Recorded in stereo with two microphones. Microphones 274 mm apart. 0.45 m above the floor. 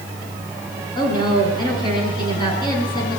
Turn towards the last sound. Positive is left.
turn(degrees=15)  # may be behind; listen again after turning